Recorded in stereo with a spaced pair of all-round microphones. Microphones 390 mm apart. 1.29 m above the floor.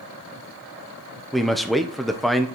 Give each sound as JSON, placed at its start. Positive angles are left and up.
{"t": 1.3, "sound": "a man speaking", "side_deg": 0, "distance_m": 0.9}